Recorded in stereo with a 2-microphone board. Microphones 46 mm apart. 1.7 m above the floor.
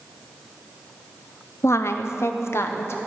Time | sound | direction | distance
1.6 | a woman speaking | 75° left (ahead or behind) | 0.7 m